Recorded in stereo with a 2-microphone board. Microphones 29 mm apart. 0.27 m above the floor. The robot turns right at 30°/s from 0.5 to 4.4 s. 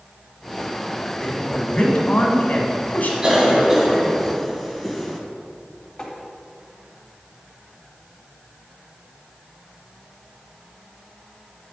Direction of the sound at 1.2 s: 30° left.